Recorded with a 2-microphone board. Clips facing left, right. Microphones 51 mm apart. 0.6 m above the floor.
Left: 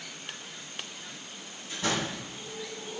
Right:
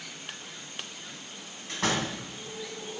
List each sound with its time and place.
1.7 s a door slam: 80° right, 3.5 m